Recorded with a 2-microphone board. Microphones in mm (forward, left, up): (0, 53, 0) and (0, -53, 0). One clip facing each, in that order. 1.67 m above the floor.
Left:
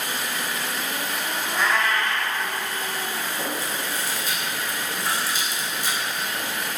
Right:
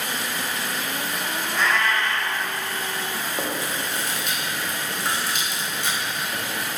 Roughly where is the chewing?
Right.